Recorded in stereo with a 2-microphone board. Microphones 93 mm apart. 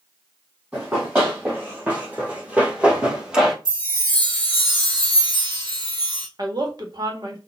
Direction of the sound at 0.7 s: 20° right (ahead or behind).